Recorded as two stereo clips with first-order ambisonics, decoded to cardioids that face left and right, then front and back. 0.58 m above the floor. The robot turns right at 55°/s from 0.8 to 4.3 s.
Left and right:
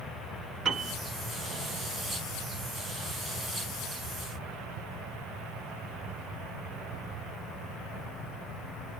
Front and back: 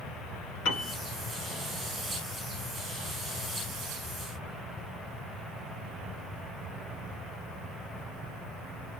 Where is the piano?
25° right, 1.2 m; by 1.0 s 15° right, 1.2 m.